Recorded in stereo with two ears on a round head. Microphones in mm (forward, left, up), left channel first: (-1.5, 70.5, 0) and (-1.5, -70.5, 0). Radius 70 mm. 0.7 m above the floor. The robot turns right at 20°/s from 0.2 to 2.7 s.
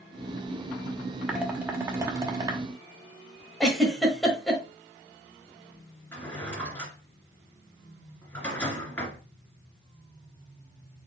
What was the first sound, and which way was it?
Dishes clattering, 5° right (ahead or behind).